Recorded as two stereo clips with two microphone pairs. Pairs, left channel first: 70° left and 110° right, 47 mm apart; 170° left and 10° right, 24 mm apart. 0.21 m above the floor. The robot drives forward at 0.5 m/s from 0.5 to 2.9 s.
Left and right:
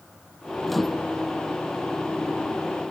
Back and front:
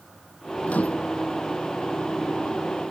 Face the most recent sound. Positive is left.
turn(degrees=165)